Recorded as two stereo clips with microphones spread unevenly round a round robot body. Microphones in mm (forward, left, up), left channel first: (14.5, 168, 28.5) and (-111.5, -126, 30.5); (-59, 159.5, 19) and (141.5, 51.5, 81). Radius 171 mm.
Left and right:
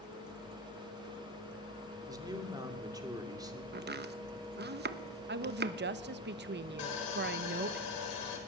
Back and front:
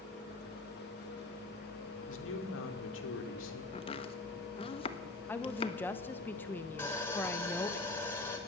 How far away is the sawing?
About 4.5 m.